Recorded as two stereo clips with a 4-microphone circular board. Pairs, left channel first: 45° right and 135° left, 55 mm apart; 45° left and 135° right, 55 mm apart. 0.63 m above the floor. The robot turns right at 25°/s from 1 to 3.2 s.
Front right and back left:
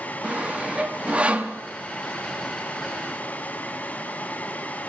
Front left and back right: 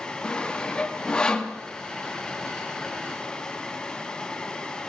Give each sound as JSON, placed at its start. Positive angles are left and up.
{"t": 0.2, "sound": "sawing", "azimuth_deg": 100, "distance_m": 0.9}